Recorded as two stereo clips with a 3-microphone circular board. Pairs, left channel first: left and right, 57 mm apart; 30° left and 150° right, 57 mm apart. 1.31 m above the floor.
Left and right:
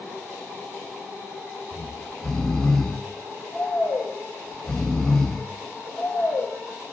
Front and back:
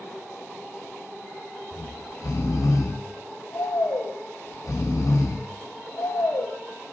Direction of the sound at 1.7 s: 10° left.